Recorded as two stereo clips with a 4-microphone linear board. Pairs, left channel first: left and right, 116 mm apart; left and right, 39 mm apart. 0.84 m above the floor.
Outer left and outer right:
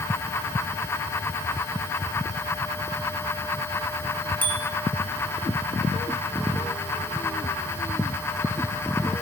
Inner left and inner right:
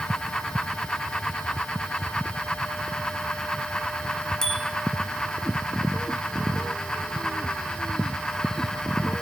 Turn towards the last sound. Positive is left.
turn(degrees=15)  # may be behind; listen again after turning